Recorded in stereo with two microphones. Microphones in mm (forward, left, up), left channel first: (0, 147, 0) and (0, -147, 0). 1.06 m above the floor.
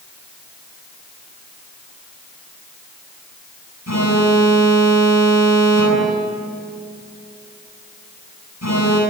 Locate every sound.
3.9 s an alarm: 65° left (ahead or behind), 9 m